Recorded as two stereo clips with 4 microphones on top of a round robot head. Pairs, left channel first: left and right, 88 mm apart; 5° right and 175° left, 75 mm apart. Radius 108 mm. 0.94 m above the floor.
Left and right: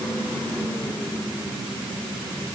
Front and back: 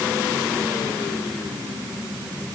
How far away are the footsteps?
No footsteps in this recording.